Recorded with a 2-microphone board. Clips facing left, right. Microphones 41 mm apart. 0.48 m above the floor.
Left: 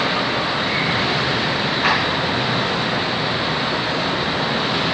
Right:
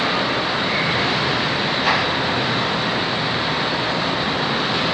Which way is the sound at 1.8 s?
65° left (ahead or behind).